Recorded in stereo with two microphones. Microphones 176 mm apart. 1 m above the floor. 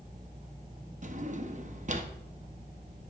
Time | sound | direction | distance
1.0 | a drawer | 45° right (ahead or behind) | 0.8 m